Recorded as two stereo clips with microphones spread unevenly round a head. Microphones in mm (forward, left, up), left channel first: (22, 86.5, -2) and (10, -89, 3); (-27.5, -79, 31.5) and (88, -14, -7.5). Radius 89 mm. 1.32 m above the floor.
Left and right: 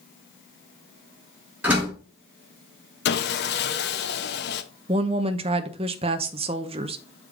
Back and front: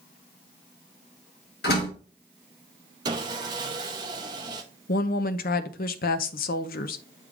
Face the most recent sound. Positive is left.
turn(degrees=-155)